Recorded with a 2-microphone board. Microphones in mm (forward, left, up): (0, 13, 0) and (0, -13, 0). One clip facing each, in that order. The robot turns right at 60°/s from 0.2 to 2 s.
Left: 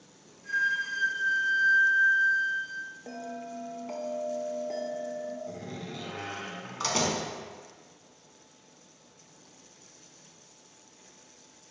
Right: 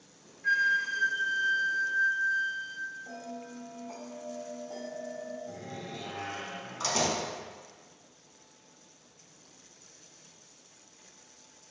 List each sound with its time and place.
0.4 s a flute: 45° right, 0.7 m; by 2.9 s 50° left, 0.7 m
3.1 s a bell: 55° left (ahead or behind), 0.7 m
5.5 s a door slam: 20° left (ahead or behind), 0.7 m